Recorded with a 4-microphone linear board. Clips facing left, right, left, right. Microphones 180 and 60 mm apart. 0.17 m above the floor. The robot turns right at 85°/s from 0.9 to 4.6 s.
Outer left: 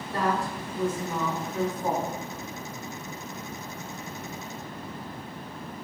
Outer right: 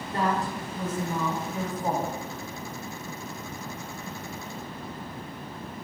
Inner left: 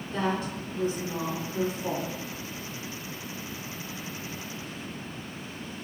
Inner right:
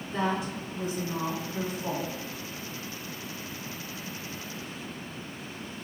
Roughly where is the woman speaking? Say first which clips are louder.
Even, even; right.